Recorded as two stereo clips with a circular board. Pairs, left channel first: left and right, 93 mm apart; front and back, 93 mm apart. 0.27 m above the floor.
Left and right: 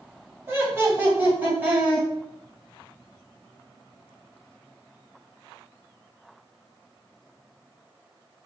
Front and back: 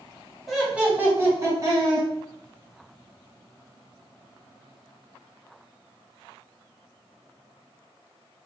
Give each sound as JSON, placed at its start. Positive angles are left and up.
{"t": 0.5, "sound": "laughter", "azimuth_deg": -95, "distance_m": 1.4}